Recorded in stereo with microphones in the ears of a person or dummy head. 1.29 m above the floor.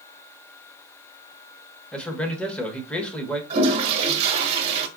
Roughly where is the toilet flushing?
Right.